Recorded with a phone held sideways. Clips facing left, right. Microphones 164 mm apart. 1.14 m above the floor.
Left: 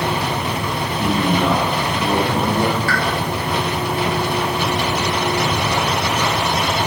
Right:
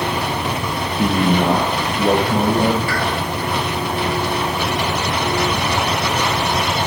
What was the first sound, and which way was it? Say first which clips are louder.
A man speaking: right 2 dB; 65° right (ahead or behind).